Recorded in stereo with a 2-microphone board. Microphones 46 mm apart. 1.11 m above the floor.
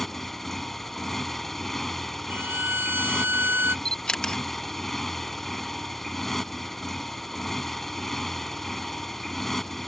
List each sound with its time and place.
0.0 s a motorcycle: 5° left (ahead or behind)
2.3 s a violin: 50° right (ahead or behind)
3.9 s a camera shutter: 15° left (ahead or behind)